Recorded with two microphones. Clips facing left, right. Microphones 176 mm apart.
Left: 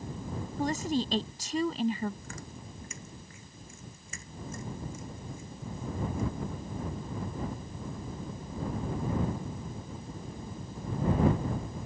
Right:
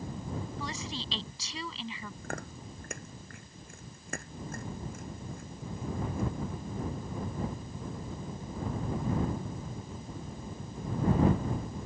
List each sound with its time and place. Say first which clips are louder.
0.6 s a woman speaking: left 10 dB; 50° left (ahead or behind)
2.2 s chewing: right 4 dB; 60° right (ahead or behind)